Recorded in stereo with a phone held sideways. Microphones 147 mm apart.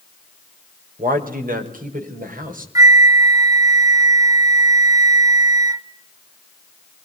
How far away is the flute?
About 1.1 m.